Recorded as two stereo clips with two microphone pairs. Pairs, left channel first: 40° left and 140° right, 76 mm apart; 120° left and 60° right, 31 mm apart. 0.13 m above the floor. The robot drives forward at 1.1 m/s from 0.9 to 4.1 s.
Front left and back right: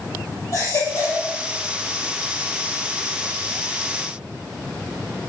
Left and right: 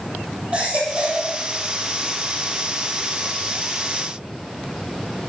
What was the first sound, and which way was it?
A baby crying, 10° right.